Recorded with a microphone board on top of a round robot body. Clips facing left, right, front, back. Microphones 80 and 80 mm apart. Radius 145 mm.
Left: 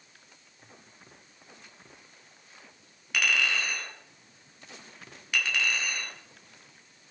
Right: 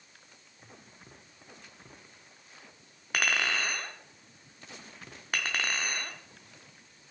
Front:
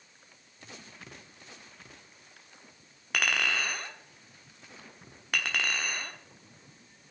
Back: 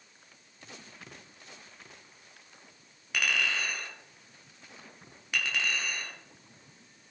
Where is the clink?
40° right, 1.5 m.